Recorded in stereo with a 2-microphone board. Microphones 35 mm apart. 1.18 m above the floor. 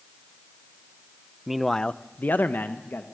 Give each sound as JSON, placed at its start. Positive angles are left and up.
{"t": 1.5, "sound": "a man speaking", "side_deg": -10, "distance_m": 0.6}